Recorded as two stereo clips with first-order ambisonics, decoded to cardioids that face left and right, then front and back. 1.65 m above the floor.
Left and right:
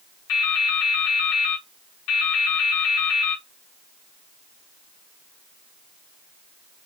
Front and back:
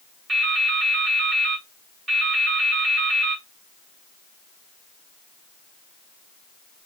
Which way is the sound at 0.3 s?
115° left.